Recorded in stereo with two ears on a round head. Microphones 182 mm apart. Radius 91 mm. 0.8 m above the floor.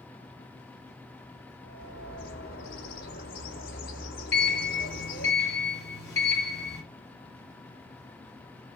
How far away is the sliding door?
About 2 m.